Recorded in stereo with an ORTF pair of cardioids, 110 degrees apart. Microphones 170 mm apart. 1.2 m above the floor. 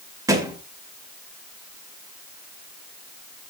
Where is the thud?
20° right, 2.0 m.